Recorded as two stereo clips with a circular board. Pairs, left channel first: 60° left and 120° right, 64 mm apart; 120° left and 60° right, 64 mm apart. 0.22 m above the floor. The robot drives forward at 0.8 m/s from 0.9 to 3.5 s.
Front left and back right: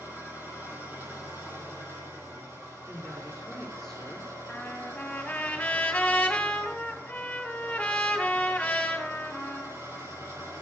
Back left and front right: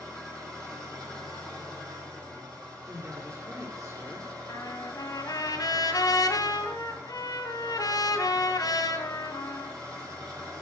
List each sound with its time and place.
0.0 s an engine running: 60° right, 8 m; by 10.6 s 75° right, 7.5 m
2.9 s a woman speaking: 20° right, 5 m; by 4.4 s 25° right, 4.5 m
4.5 s a trumpet: 130° left, 2.5 m